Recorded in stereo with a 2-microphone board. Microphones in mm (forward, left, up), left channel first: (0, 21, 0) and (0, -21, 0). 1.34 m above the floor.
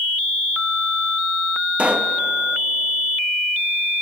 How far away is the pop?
About 1.0 m.